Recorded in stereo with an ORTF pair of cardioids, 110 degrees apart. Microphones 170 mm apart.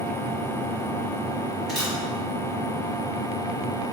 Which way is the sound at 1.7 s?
Straight ahead.